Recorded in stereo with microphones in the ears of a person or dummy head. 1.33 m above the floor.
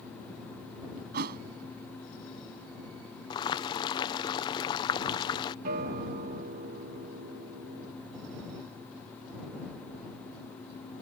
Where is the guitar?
50° right (ahead or behind).